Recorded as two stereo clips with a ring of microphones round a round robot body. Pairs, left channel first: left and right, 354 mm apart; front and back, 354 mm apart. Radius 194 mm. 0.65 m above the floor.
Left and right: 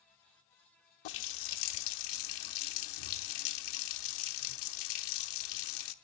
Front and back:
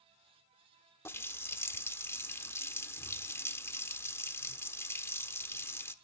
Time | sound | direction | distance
1.1 | a running tap | 85° left | 1.0 m